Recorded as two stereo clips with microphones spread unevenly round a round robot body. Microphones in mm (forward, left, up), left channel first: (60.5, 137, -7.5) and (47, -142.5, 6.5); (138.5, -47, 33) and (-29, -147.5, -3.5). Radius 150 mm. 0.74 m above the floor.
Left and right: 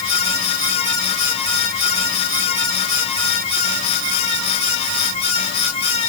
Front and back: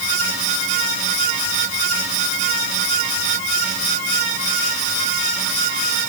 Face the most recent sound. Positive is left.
No sound to turn to.